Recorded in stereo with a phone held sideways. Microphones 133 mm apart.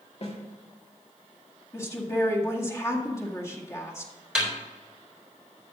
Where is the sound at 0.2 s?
50° left (ahead or behind), 2 m.